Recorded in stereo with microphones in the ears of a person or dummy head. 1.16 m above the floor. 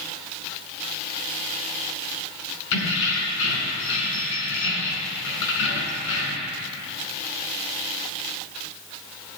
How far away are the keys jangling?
About 4.5 m.